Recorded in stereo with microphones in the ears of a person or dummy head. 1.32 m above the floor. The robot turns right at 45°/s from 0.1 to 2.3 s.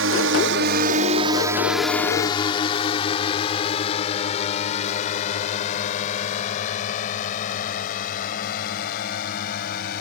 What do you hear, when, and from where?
0.0 s a drone: 65° right (ahead or behind); by 10.0 s 45° left (ahead or behind)